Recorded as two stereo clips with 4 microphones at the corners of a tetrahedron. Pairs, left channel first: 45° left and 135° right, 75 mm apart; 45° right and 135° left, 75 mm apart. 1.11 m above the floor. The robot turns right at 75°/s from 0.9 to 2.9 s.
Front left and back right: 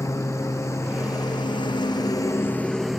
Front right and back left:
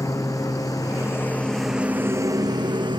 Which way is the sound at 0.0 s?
Straight ahead.